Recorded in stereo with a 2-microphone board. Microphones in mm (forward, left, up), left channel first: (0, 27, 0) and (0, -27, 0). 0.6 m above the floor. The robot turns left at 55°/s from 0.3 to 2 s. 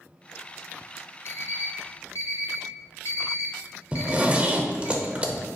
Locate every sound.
1.2 s an alarm clock: 45° left (ahead or behind), 0.7 m; by 4.9 s 55° left (ahead or behind), 0.7 m
3.9 s a zipper: 25° right (ahead or behind), 0.6 m